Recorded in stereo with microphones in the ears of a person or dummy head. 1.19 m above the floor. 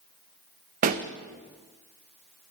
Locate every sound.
0.8 s a pop: 45° right (ahead or behind), 0.6 m